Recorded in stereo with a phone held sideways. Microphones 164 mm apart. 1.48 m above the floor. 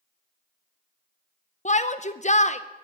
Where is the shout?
45° left (ahead or behind), 0.8 m.